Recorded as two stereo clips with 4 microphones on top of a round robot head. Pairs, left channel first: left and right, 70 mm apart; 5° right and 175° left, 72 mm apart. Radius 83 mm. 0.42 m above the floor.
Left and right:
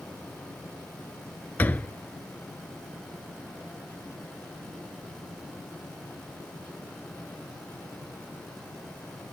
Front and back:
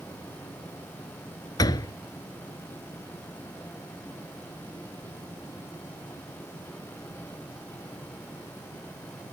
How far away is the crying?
No crying in this recording.